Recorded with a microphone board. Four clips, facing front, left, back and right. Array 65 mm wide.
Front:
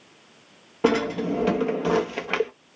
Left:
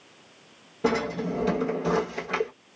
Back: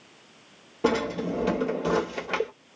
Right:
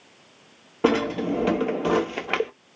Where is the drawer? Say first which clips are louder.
Right 4 dB, front 3 dB; 60° right, 1.1 m.